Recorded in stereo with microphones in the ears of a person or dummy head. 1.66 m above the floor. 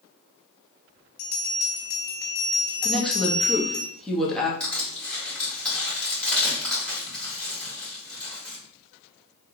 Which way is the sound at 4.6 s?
10° left (ahead or behind).